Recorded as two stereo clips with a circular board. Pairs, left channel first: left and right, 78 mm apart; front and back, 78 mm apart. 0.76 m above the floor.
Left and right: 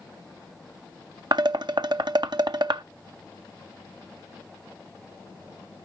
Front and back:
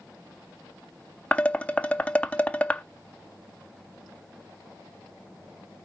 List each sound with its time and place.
1.3 s dishes clattering: 75° right, 0.6 m